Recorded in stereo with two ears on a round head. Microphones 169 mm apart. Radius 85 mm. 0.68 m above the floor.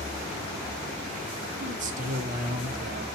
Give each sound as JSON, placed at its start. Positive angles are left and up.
{"t": 1.6, "sound": "a man speaking", "side_deg": -45, "distance_m": 1.3}